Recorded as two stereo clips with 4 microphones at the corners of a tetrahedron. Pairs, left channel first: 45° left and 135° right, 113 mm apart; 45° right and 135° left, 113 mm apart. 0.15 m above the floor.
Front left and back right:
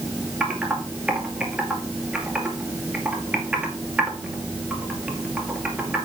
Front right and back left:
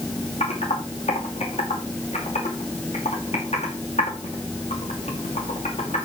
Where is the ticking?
I don't hear ticking.